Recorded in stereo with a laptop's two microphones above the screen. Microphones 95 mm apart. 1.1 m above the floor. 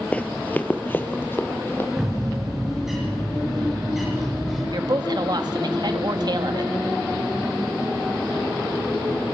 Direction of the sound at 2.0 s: 5° right (ahead or behind).